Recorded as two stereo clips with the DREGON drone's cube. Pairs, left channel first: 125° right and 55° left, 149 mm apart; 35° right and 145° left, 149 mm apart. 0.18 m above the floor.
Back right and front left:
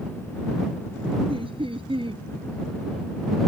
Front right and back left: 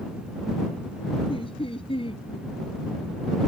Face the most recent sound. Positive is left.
turn(degrees=10)